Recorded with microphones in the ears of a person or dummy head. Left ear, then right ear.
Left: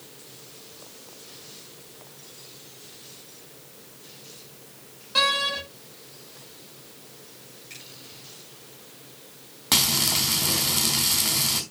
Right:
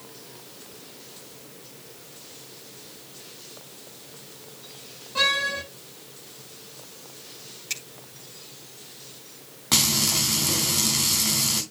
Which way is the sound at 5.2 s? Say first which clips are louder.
Left 1 dB; 65° left (ahead or behind).